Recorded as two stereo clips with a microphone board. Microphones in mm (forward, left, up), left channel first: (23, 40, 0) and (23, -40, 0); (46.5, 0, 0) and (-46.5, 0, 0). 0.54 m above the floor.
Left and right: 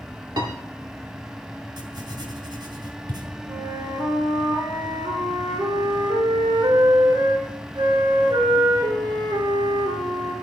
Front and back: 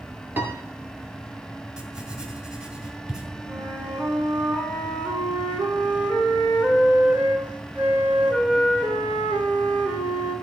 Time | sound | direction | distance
0.4 | a piano | 115° right | 1.9 m
1.8 | writing | 100° right | 3 m
3.5 | a flute | 105° right | 3.5 m